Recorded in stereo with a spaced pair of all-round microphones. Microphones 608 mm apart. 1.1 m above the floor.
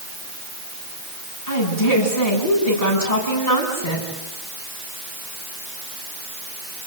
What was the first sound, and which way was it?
A woman speaking, 85° left.